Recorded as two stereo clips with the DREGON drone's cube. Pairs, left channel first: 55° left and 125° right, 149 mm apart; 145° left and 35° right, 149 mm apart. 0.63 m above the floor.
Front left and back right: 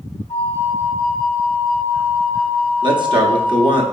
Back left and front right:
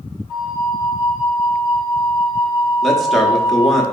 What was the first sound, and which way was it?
A flute, 10° left.